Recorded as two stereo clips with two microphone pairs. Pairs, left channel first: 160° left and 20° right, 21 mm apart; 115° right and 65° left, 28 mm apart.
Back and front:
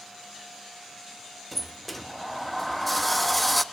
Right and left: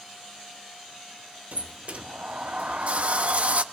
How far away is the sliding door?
About 0.8 m.